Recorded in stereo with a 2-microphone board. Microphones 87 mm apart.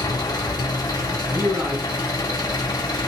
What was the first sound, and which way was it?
An engine running, 45° left (ahead or behind).